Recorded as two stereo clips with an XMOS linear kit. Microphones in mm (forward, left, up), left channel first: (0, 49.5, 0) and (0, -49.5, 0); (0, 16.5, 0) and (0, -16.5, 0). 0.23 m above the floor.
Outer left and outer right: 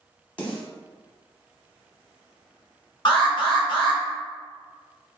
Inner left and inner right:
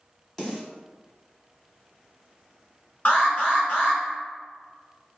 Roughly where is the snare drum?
Centre.